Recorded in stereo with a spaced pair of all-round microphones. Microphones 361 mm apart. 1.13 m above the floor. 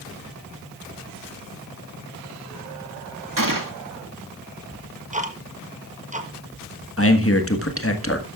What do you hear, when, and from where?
3.4 s a gunshot: 60° right (ahead or behind), 1.9 m
4.7 s ticking: 20° right (ahead or behind), 1.2 m
7.0 s a man speaking: 40° left (ahead or behind), 1.5 m